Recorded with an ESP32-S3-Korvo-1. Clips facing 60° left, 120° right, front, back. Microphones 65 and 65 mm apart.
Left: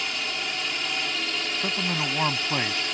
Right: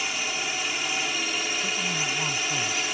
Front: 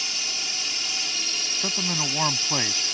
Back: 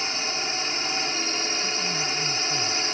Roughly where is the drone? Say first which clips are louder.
Right 1 dB, back 5 dB; behind.